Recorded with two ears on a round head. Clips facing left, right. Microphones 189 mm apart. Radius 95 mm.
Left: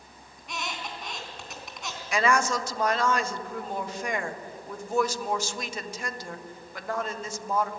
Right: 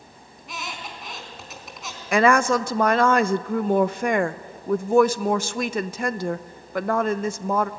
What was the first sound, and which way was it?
A squeak, centre (ahead or behind).